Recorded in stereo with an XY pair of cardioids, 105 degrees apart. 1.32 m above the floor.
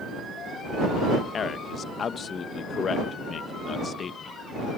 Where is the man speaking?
45° left.